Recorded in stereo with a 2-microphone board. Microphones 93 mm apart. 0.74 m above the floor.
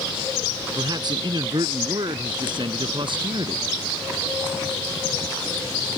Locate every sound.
0.8 s a man speaking: 50° right (ahead or behind); by 3.6 s 65° right (ahead or behind)